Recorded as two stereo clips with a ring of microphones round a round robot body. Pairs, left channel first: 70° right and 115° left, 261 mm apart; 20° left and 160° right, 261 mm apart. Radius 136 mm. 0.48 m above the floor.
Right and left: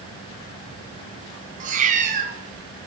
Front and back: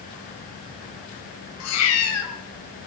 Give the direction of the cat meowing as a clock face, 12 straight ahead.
10 o'clock.